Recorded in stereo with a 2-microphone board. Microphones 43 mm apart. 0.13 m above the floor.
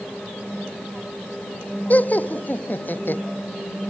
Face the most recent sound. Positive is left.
turn(degrees=50)  # may be behind; listen again after turning